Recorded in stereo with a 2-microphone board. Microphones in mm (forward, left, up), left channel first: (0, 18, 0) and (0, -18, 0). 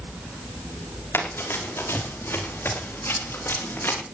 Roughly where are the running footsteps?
Left.